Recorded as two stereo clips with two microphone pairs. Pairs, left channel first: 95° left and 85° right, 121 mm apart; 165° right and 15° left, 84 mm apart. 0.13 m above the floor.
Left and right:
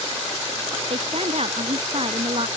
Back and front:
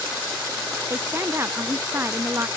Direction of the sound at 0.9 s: 50° right.